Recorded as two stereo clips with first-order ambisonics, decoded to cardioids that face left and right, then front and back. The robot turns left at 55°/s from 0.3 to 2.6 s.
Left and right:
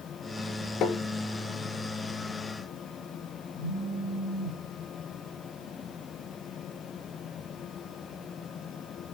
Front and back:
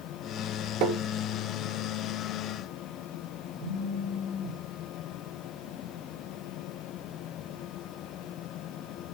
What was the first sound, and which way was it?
Tapping, 145° left.